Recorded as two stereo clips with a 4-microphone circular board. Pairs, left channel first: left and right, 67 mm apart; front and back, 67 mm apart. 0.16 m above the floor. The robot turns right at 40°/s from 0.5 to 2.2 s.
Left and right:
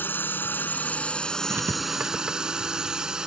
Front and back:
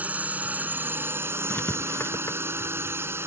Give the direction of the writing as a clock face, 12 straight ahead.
2 o'clock.